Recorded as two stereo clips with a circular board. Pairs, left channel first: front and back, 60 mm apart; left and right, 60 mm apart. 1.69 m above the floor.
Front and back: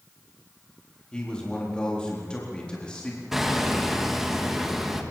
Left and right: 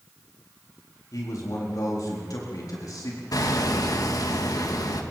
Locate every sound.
1.1 s a man speaking: 75° left, 4 m
3.3 s hammering: 95° left, 2 m